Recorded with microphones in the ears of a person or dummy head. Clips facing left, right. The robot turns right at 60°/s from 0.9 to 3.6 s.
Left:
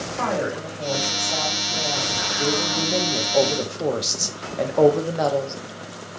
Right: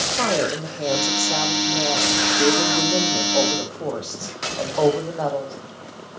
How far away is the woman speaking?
About 0.7 m.